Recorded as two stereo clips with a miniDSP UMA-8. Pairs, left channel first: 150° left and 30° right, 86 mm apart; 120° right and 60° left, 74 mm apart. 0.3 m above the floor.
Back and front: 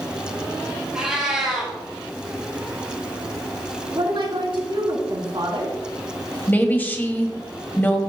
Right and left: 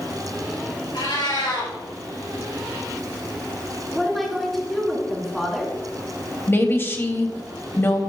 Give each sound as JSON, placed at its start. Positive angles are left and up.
{"t": 0.9, "sound": "a cat meowing", "azimuth_deg": -110, "distance_m": 3.5}
{"t": 3.9, "sound": "a woman speaking", "azimuth_deg": -30, "distance_m": 3.0}
{"t": 6.5, "sound": "a woman speaking", "azimuth_deg": -155, "distance_m": 1.6}